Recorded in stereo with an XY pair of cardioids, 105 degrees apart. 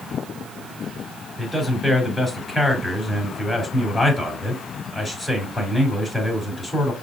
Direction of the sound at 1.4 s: 5° left.